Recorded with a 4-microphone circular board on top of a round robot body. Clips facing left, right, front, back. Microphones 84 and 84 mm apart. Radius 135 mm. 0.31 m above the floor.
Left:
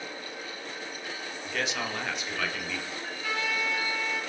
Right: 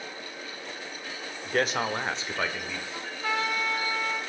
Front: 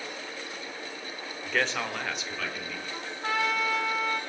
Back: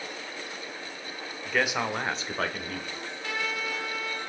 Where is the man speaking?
90° right, 1.9 m; by 2.8 s 160° right, 2.5 m.